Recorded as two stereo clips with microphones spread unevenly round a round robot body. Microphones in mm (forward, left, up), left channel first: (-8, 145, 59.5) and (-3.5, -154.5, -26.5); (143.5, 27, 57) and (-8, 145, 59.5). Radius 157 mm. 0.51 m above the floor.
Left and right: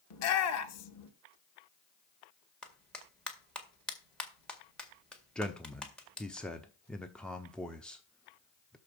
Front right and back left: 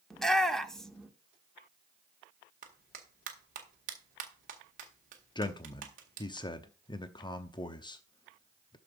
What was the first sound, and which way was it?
A shout, 50° left.